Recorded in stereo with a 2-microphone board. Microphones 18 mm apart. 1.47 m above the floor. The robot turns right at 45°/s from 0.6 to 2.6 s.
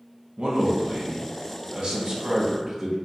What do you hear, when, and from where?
0.4 s a man speaking: 115° right, 0.7 m; by 3.0 s 25° right, 0.7 m